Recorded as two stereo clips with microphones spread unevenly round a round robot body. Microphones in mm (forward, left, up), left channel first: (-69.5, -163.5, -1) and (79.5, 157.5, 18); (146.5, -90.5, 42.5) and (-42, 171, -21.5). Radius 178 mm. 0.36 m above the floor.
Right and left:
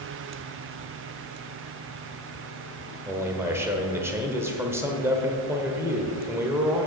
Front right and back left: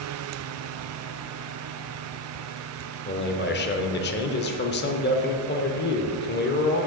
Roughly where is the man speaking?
Ahead.